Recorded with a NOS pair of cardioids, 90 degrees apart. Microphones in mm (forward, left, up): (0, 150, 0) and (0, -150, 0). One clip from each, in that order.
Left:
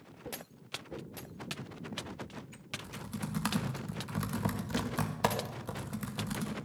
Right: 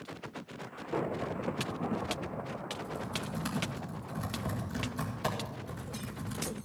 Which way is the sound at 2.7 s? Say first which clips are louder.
Right 1 dB; 70° left.